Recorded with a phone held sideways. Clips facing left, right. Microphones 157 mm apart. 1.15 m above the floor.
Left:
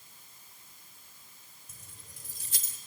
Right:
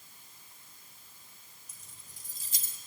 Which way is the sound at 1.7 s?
55° left (ahead or behind).